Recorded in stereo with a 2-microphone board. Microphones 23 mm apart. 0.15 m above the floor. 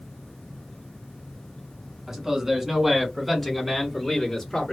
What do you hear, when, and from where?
2.1 s a man speaking: 25° right (ahead or behind), 1.4 m; by 4.7 s 20° left (ahead or behind), 1.6 m